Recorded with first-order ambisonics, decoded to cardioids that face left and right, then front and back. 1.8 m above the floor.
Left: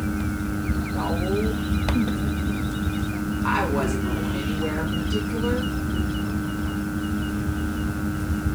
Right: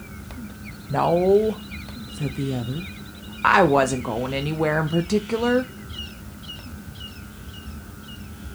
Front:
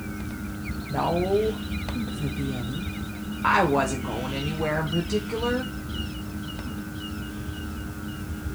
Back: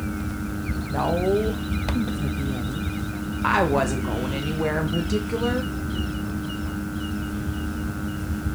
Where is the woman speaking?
100° right, 0.9 m.